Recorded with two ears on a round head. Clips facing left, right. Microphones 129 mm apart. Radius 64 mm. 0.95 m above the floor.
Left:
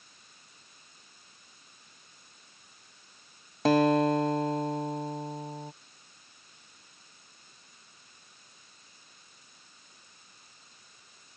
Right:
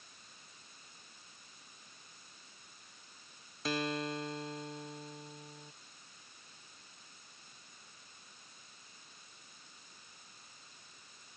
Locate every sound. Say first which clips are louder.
3.6 s a guitar: left 14 dB; 45° left (ahead or behind)